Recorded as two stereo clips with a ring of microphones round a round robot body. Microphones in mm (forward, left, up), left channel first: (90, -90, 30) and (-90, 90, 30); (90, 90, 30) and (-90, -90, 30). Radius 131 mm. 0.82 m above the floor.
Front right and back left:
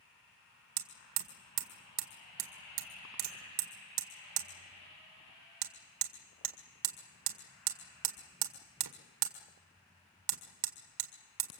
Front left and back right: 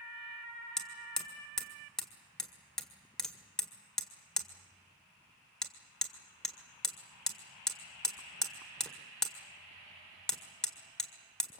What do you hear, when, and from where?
0.8 s hammering: 135° left, 1.8 m